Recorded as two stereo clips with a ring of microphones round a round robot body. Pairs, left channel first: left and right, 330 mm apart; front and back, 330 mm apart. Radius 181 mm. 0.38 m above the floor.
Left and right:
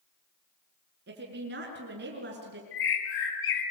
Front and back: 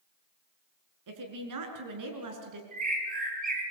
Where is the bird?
110° left, 3.5 m.